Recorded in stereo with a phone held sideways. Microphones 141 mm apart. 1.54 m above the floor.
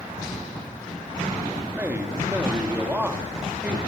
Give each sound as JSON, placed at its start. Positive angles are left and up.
{"t": 1.8, "sound": "a man speaking", "side_deg": -15, "distance_m": 3.0}